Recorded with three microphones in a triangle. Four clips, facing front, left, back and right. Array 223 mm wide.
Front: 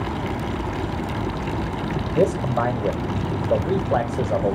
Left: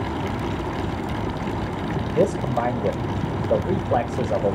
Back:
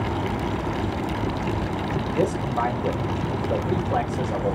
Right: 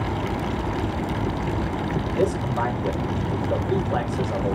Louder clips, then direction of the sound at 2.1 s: Left 3 dB, front 5 dB; 45° left.